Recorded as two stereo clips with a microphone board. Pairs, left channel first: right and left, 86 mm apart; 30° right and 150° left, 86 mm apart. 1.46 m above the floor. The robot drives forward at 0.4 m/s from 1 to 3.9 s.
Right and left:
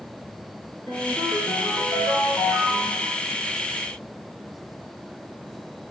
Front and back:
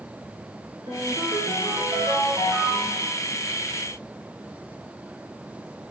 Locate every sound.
0.9 s a ringtone: 175° right, 4 m